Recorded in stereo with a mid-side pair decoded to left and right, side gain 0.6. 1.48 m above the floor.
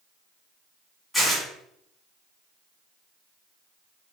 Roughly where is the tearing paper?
Ahead.